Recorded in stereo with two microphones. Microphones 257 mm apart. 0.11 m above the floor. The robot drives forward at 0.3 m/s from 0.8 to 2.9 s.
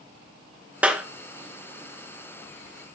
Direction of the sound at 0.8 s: 5° right (ahead or behind).